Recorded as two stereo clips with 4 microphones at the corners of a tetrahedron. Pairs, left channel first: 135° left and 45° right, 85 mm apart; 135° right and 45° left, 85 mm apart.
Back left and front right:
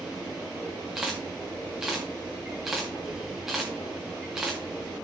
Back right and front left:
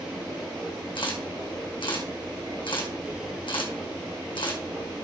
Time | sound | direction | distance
0.9 | a camera shutter | 130° right | 2 m